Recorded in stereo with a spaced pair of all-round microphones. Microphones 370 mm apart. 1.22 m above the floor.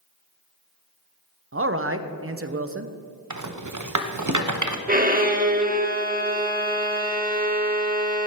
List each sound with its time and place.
1.5 s a man speaking: 35° right (ahead or behind), 0.8 m
3.3 s a rattle: 50° right (ahead or behind), 0.8 m
4.9 s a violin: 25° right (ahead or behind), 1.1 m